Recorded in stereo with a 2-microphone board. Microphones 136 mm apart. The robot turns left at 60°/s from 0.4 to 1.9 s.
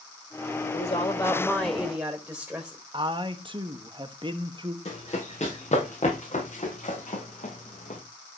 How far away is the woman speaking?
About 2.5 m.